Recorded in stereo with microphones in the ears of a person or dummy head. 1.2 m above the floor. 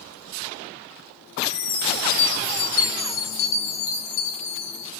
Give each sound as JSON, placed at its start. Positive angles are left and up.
{"t": 1.4, "sound": "a chime", "side_deg": 70, "distance_m": 1.5}